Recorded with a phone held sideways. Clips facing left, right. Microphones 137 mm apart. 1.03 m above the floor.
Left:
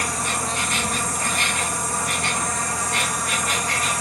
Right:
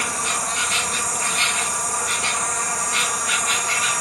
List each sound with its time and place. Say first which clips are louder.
0.0 s an insect: left 1 dB; 50° left (ahead or behind)